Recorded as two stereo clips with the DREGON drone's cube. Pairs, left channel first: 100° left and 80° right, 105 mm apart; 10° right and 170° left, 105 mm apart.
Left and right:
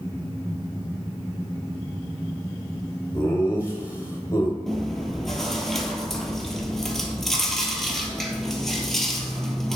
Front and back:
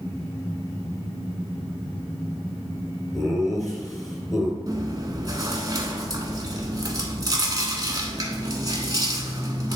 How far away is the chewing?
About 1.1 m.